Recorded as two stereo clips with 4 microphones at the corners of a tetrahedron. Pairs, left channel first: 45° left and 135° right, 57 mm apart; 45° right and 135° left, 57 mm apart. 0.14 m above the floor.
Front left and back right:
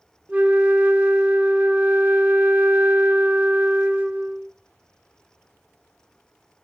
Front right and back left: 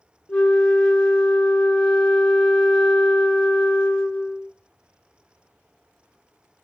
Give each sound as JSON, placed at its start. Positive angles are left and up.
{"t": 0.3, "sound": "a flute", "azimuth_deg": -95, "distance_m": 1.0}